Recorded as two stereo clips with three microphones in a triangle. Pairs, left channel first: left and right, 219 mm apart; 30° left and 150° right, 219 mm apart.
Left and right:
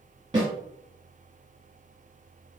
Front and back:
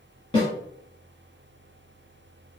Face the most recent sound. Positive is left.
turn(degrees=-25)